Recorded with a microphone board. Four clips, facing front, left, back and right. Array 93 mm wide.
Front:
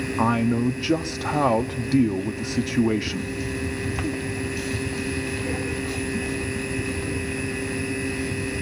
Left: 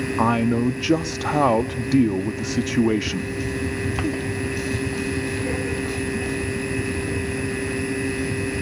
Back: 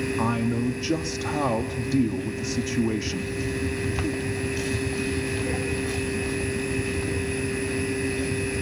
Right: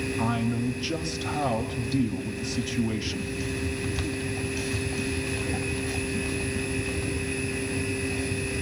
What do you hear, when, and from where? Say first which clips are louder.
0.2 s a man speaking: left 9 dB, front 6 dB; 70° left, 1.0 m